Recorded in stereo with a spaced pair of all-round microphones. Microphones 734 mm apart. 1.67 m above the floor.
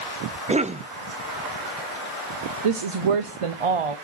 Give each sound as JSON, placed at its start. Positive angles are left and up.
{"t": 0.5, "sound": "a cough", "side_deg": -10, "distance_m": 0.5}
{"t": 2.6, "sound": "a woman speaking", "side_deg": -50, "distance_m": 0.7}